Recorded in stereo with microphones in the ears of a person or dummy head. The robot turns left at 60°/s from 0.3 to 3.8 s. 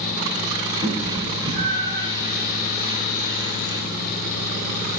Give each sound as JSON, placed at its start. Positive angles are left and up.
{"t": 0.8, "sound": "a cat meowing", "side_deg": -25, "distance_m": 9.0}